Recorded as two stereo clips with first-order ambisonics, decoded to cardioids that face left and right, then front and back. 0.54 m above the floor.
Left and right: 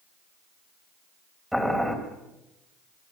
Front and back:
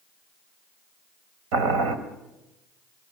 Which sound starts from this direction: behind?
Boiling, at 1.5 s.